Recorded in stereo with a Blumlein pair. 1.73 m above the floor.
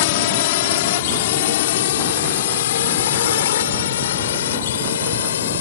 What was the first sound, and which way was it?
A drone, 50° left.